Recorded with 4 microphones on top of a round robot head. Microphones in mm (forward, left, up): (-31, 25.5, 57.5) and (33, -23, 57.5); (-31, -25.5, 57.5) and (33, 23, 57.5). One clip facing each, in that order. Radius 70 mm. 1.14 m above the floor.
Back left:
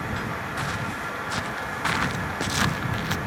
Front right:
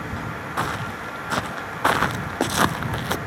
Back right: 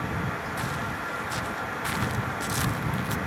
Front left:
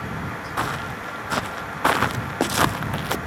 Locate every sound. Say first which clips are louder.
0.6 s footsteps: front right 7 dB, front left 4 dB; 5° left; by 3.2 s 10° left